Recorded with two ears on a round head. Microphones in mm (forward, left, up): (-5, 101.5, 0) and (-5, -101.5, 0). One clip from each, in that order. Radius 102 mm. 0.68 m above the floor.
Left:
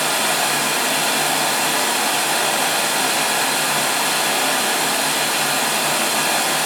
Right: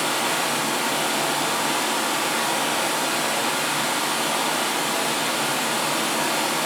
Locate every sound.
0.0 s running water: 80° left, 1.8 m